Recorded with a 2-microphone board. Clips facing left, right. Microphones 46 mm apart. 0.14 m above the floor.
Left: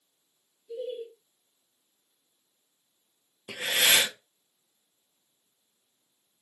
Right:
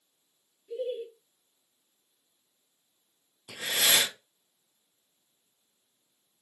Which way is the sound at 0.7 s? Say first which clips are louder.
Right 2 dB; 30° right (ahead or behind).